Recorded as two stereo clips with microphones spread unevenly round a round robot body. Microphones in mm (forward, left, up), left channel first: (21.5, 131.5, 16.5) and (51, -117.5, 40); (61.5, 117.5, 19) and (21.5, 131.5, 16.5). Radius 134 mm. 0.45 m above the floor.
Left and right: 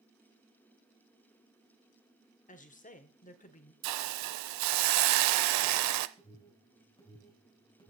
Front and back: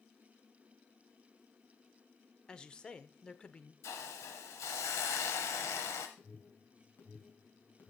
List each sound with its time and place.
2.5 s a woman speaking: 50° left, 1.3 m
3.8 s a hiss: 60° right, 0.6 m
6.2 s an alarm: 25° left, 5 m